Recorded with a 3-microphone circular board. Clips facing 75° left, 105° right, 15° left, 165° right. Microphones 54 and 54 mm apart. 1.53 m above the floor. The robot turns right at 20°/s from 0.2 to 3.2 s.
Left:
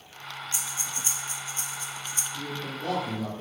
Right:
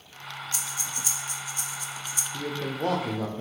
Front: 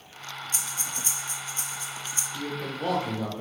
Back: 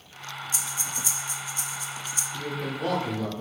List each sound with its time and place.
0.5 s breathing: 20° left, 0.6 m; by 2.2 s 55° left, 0.6 m
2.3 s a man speaking: 80° right, 0.7 m; by 3.4 s 65° right, 0.7 m